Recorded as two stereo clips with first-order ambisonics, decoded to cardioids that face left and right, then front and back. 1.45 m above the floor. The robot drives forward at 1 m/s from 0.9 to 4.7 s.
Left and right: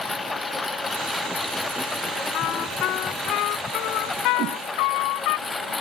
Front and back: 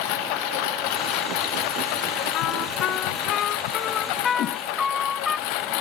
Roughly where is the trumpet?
Ahead left.